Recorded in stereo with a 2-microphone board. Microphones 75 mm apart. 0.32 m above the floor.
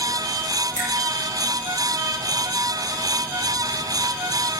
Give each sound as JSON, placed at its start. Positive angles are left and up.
{"t": 0.8, "sound": "a finger snap", "side_deg": -40, "distance_m": 6.5}